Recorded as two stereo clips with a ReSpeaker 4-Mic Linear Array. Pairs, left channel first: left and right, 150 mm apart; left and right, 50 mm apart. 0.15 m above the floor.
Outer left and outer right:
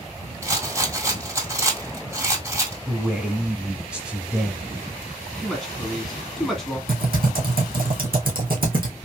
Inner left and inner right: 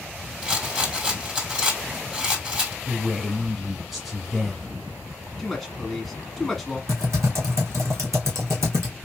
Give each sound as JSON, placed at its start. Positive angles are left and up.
{"t": 0.4, "sound": "a rattle", "side_deg": -20, "distance_m": 1.5}
{"t": 2.9, "sound": "a man speaking", "side_deg": -5, "distance_m": 1.2}
{"t": 5.4, "sound": "a woman speaking", "side_deg": 0, "distance_m": 1.3}
{"t": 6.9, "sound": "typing on a keyboard", "side_deg": -70, "distance_m": 2.0}